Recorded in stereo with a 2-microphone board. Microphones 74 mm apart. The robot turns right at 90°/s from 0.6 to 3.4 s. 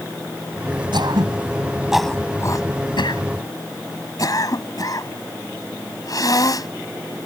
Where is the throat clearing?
80° right; by 6.7 s 50° left (ahead or behind).